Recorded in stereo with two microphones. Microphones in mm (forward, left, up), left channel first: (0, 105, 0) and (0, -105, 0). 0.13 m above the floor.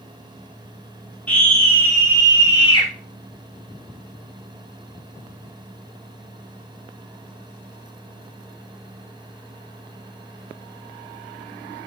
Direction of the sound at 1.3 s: 5° left (ahead or behind).